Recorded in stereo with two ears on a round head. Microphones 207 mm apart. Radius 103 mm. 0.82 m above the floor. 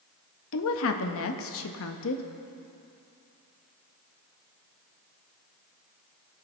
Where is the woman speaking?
60° left (ahead or behind), 0.8 m.